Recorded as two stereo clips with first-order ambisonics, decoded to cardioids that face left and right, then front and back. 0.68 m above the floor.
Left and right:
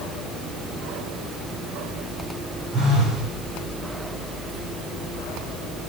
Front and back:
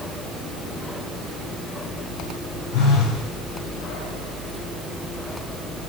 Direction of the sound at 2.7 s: 10° right.